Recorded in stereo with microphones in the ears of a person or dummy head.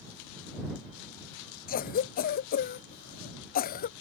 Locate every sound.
1.7 s a cough: 40° left (ahead or behind)